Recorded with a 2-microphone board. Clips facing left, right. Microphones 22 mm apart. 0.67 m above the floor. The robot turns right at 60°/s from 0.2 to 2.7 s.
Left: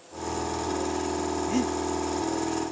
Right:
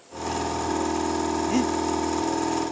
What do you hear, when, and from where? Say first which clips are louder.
1.5 s breathing: right 3 dB; 25° right (ahead or behind); by 1.8 s 10° right (ahead or behind)